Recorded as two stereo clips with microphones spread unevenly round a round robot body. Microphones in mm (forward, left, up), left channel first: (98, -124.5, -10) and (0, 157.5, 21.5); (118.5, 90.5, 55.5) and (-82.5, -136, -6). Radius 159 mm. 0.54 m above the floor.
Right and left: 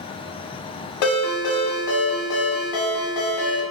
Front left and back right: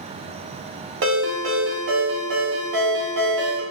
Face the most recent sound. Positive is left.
turn(degrees=-85)